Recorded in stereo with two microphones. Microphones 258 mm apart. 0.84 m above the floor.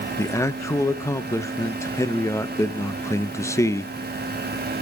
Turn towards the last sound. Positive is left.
turn(degrees=10)  # may be behind; listen again after turning